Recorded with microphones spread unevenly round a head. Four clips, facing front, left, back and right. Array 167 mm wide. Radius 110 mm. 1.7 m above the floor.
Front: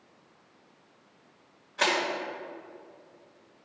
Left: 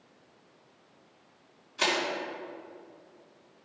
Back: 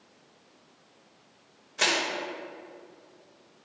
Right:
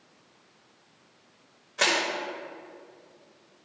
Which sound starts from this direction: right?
Crushing, at 1.8 s.